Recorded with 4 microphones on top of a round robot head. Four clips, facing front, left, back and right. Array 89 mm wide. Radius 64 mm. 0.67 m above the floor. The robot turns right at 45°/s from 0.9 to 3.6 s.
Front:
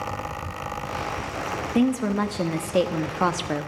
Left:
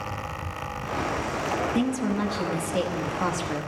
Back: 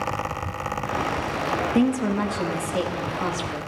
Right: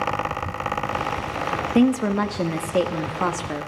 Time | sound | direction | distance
1.8 | a woman speaking | 95° right | 0.8 m